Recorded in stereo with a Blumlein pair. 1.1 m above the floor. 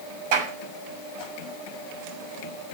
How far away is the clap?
About 7 m.